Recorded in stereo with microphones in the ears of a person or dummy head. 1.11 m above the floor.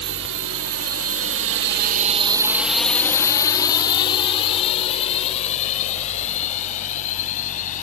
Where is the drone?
65° right (ahead or behind); by 7.8 s 45° left (ahead or behind).